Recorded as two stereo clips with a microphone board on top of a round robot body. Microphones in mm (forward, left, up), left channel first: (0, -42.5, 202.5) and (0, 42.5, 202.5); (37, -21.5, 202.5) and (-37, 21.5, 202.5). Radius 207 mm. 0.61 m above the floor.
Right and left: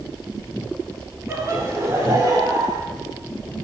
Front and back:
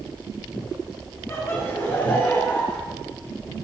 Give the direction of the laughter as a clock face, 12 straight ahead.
11 o'clock.